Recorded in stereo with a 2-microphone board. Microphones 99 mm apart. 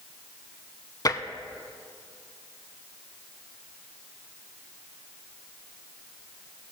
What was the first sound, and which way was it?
Tapping, 40° left (ahead or behind).